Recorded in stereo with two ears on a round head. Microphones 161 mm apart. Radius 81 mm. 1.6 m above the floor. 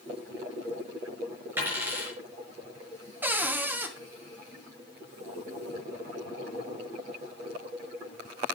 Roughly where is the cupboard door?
Centre.